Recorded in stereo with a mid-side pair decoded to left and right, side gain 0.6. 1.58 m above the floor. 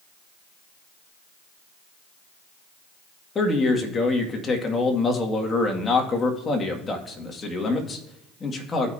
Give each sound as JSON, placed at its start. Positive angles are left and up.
{"t": 3.4, "sound": "a man speaking", "azimuth_deg": 30, "distance_m": 2.0}